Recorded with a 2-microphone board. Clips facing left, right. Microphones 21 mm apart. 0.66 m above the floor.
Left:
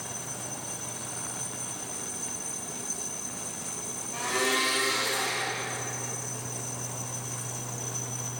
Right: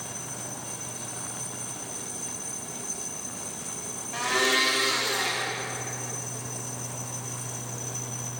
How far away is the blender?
About 0.7 m.